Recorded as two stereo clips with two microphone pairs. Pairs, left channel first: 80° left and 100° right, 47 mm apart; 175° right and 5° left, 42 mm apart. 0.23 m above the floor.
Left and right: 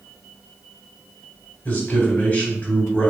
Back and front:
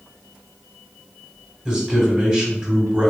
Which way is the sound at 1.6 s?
75° left.